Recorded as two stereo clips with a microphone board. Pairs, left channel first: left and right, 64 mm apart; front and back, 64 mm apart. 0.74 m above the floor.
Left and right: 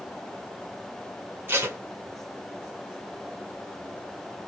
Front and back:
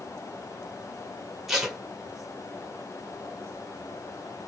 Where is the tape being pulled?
95° right, 1.0 m.